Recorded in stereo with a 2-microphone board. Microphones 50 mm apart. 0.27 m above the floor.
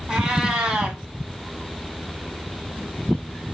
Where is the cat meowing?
20° right (ahead or behind), 0.9 m.